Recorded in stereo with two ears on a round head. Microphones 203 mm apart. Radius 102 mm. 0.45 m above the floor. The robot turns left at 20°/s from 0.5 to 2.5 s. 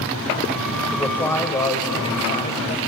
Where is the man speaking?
175° left, 2 m; by 2.8 s 140° left, 2 m.